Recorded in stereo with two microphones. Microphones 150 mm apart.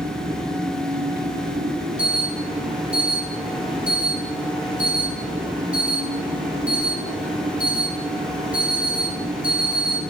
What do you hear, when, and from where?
0.0 s an engine running: 80° right, 5 m
2.0 s an alarm: 10° right (ahead or behind), 8 m